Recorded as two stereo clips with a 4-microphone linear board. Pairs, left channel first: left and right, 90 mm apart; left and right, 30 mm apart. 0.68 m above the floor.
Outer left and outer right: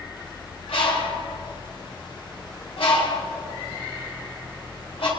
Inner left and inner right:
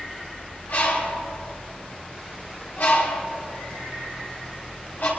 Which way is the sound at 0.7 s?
80° left.